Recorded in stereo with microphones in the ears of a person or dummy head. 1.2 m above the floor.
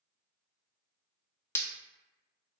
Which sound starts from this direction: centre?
Breaking glass, at 1.6 s.